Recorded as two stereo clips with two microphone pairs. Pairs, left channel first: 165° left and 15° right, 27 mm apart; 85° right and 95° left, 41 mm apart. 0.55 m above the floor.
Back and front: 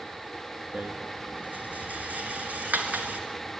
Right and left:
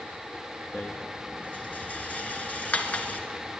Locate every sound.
0.7 s a rattle: 30° right, 1.1 m